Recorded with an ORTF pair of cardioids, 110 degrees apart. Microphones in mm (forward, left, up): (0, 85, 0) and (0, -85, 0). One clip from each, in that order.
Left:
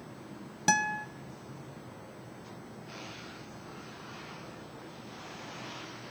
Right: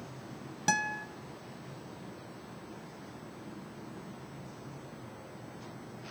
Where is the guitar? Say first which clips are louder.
Left 3 dB; 15° left, 0.6 m.